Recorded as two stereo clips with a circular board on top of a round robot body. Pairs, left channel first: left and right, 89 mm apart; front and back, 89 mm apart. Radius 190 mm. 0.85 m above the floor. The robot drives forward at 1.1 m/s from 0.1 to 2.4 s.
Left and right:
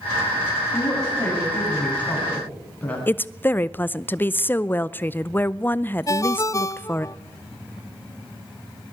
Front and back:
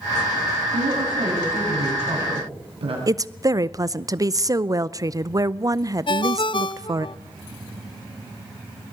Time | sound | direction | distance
0.7 | a woman speaking | 160° left | 7.5 m
3.1 | a woman speaking | 150° left | 0.8 m
6.1 | a ringtone | 30° left | 0.6 m